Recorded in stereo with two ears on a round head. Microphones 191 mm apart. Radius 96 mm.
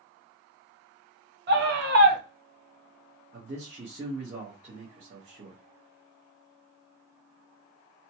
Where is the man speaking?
30° right (ahead or behind), 1.1 m.